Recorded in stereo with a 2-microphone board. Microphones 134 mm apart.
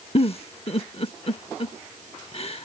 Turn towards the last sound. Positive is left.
turn(degrees=45)  # may be behind; listen again after turning